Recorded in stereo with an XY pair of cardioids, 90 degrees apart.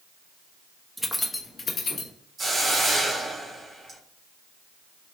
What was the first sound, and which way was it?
Keys jangling, 10° right.